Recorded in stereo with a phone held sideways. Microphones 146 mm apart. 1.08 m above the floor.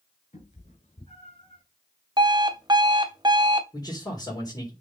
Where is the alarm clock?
30° right (ahead or behind), 1.0 m.